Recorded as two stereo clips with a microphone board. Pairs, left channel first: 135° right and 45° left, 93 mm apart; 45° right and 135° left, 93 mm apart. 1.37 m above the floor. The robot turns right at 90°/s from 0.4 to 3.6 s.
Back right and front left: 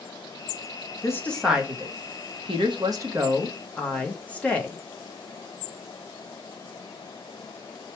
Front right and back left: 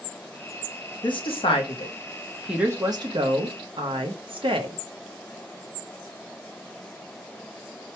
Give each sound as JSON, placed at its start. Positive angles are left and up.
{"t": 1.0, "sound": "a woman speaking", "azimuth_deg": -80, "distance_m": 0.9}